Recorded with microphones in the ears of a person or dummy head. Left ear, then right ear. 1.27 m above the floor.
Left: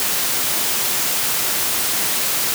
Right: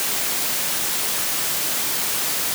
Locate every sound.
Only background noise.